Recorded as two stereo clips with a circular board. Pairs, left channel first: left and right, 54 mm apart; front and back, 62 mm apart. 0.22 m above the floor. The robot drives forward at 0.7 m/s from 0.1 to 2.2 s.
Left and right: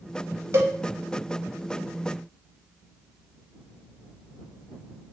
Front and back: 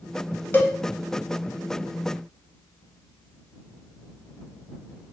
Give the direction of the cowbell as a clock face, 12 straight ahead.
2 o'clock.